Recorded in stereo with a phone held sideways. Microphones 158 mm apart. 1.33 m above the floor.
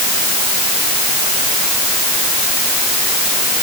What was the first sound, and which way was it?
Only background noise.